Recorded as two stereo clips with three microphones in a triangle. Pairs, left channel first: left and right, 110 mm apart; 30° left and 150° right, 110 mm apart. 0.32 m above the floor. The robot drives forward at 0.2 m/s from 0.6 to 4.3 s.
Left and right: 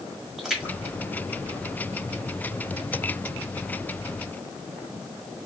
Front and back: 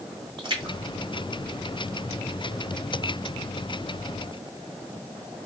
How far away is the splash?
About 1.8 m.